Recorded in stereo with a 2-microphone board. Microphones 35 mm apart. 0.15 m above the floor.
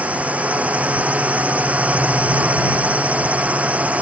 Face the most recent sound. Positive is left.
turn(degrees=-45)  # may be behind; listen again after turning